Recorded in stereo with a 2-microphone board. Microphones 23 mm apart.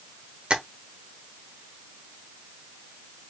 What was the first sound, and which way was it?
Tapping, 45° right (ahead or behind).